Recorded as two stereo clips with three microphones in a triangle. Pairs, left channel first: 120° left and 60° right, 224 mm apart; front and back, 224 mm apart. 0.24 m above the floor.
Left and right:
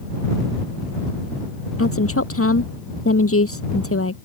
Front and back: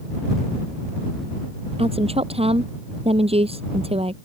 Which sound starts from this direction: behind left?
A woman speaking, at 1.8 s.